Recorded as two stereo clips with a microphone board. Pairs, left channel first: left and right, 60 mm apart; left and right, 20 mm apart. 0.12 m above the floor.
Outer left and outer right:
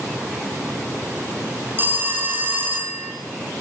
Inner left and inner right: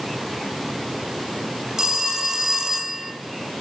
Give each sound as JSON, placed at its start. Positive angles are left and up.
{"t": 1.8, "sound": "a phone ringing", "side_deg": -30, "distance_m": 2.0}